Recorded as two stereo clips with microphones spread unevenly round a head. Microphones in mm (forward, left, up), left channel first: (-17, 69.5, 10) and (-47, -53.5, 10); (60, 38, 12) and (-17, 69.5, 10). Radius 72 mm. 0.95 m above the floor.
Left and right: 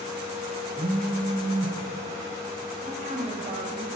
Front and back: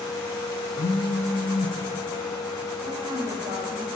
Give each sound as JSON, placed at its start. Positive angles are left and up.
{"t": 0.8, "sound": "a phone buzzing", "azimuth_deg": -45, "distance_m": 1.0}
{"t": 2.8, "sound": "a woman speaking", "azimuth_deg": -145, "distance_m": 5.5}